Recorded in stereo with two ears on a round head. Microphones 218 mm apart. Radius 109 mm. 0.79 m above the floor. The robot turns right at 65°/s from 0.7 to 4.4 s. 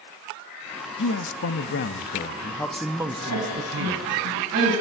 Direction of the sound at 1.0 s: 65° left.